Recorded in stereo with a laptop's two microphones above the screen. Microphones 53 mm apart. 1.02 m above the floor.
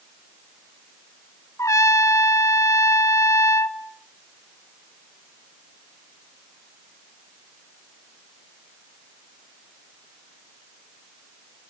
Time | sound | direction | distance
1.6 | a trumpet | 70° left (ahead or behind) | 1.0 m